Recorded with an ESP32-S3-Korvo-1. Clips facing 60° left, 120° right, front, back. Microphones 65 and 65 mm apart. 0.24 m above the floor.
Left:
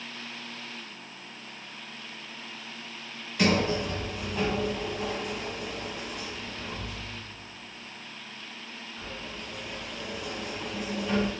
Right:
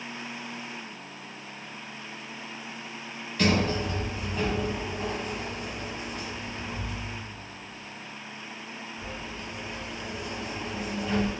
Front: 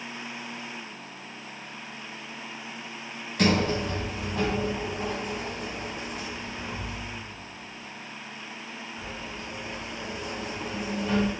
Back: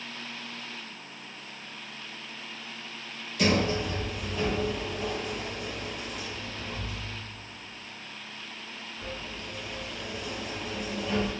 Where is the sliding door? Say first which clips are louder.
Even, front 2 dB; 20° right, 1.0 m.